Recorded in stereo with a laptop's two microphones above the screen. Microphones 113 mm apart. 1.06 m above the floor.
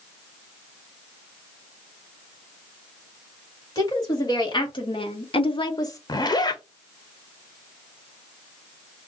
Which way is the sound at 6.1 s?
40° left (ahead or behind).